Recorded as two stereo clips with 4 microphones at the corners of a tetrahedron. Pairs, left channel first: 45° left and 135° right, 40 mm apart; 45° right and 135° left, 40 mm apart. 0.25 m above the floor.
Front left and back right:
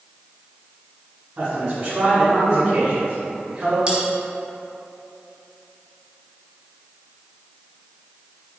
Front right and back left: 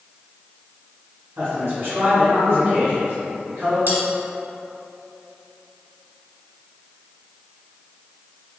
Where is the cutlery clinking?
160° left, 1.3 m.